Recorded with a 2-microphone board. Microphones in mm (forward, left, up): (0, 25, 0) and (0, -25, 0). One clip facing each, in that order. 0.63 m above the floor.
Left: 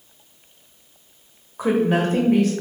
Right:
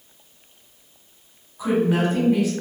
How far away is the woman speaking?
About 0.8 m.